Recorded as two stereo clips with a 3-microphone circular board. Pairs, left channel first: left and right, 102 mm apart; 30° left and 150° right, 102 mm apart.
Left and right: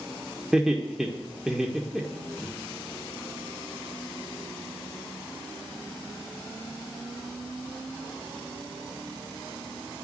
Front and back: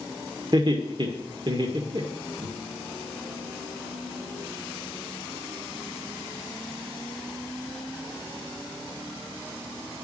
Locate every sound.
0.5 s laughter: 175° right, 1.6 m